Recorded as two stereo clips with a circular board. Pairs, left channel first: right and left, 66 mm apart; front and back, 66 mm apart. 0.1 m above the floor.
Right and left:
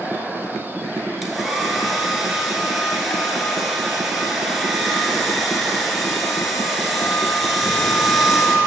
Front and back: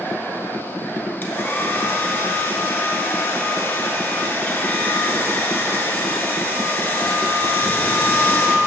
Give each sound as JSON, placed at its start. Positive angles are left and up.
{"t": 1.2, "sound": "a hair dryer", "azimuth_deg": 0, "distance_m": 1.0}